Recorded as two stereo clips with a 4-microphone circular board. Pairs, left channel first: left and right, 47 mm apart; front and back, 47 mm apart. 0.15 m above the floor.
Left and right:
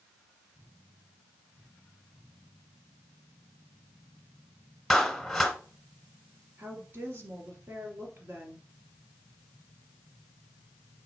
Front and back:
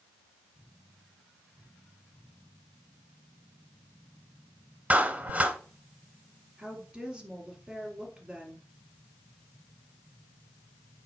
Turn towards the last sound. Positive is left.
turn(degrees=-105)